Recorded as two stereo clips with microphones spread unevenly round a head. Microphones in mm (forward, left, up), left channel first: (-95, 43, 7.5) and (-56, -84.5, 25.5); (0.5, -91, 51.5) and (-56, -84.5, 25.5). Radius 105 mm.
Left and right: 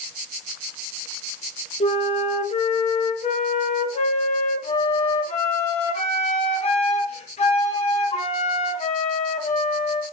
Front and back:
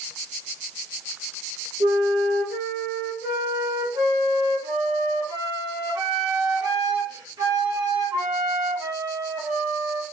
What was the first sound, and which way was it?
A flute, 150° left.